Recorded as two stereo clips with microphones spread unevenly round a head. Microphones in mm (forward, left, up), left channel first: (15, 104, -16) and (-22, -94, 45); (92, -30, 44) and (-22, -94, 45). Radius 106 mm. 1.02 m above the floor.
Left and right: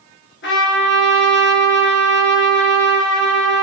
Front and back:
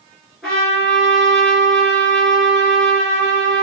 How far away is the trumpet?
About 3.5 m.